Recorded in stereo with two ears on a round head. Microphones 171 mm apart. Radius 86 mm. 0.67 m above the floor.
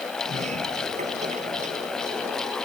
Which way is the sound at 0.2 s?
40° right (ahead or behind).